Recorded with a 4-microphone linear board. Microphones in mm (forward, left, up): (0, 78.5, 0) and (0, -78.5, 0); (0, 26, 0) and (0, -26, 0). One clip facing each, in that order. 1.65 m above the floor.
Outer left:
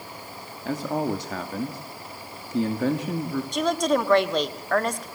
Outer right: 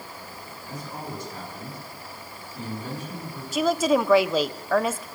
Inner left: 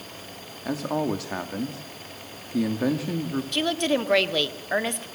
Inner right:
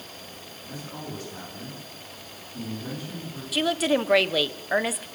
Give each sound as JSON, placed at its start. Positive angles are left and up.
{"t": 0.7, "sound": "a man speaking", "side_deg": 85, "distance_m": 3.0}
{"t": 3.5, "sound": "a woman speaking", "side_deg": -5, "distance_m": 1.3}